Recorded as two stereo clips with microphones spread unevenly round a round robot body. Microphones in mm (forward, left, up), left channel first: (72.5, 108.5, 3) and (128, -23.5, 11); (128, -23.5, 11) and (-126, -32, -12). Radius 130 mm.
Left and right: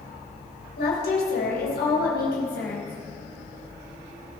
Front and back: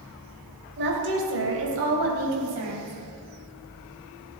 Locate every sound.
0.8 s a woman speaking: 130° left, 3 m; by 2.9 s 155° left, 4.5 m